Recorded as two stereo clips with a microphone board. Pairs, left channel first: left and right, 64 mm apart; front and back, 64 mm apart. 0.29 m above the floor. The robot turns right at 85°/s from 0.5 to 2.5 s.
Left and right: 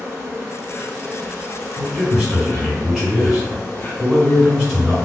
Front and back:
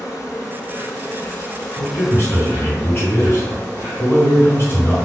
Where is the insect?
40° right, 1.7 m; by 5.0 s 130° left, 1.7 m.